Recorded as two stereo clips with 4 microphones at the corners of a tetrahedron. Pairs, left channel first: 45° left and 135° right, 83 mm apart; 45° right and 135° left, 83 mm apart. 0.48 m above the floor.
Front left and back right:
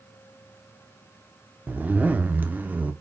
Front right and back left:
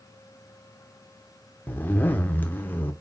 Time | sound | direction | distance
1.7 | a zipper | 85° right | 0.7 m